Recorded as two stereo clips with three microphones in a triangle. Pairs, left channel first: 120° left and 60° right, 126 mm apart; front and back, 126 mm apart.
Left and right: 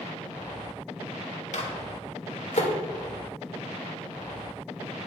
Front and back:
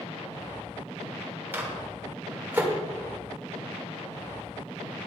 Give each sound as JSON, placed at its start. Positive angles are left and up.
{"t": 1.5, "sound": "a microwave", "azimuth_deg": 105, "distance_m": 1.6}